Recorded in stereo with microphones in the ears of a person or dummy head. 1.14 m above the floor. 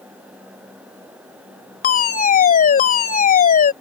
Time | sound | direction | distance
1.8 | a fire alarm | 45° left (ahead or behind) | ?